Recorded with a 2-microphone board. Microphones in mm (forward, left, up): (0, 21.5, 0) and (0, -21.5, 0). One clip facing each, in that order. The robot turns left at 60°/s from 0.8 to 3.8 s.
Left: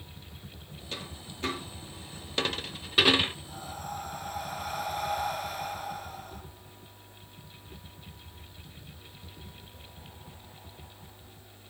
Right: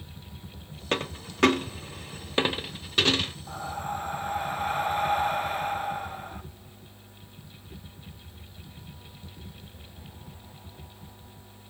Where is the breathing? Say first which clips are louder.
Right 6 dB; 50° right (ahead or behind), 1.2 m; by 6.4 s 35° right (ahead or behind), 1.2 m.